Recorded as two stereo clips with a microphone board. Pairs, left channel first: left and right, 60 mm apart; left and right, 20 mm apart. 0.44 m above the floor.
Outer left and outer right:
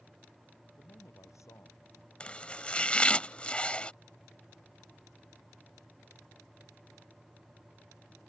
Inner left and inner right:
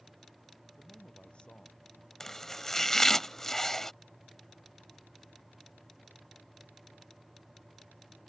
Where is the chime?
No chime in this recording.